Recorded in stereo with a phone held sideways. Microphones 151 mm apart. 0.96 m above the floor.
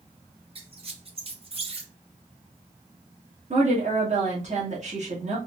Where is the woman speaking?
55° right (ahead or behind), 1.5 m.